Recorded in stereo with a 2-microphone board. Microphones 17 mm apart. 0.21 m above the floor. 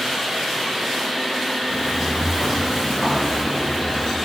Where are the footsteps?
Centre (ahead or behind), 3 m; by 4.1 s 35° left (ahead or behind), 2.5 m.